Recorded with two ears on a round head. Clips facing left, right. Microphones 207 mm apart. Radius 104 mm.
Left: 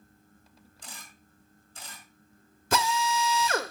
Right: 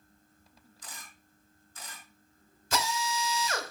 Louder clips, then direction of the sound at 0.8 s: Left 1 dB; 30° left (ahead or behind).